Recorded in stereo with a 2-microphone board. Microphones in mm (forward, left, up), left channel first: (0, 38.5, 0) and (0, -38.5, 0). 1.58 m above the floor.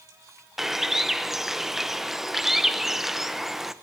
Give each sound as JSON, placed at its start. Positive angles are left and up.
{"t": 0.6, "sound": "a bird", "side_deg": -5, "distance_m": 0.9}